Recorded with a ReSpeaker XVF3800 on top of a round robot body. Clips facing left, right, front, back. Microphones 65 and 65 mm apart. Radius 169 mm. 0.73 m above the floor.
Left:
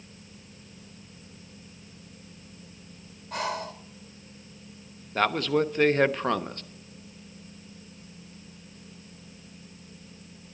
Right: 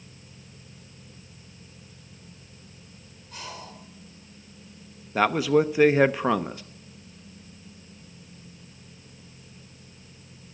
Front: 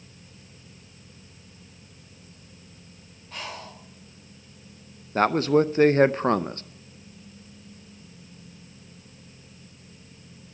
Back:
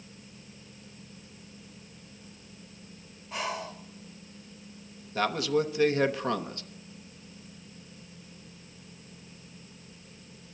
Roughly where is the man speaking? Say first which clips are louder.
Right 4 dB, front 7 dB; ahead.